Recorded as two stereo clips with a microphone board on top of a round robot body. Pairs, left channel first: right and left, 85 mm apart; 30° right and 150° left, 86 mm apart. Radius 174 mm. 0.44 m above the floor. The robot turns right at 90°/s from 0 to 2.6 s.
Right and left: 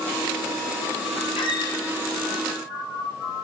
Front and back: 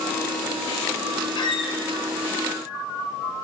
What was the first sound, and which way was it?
A squeak, 65° right.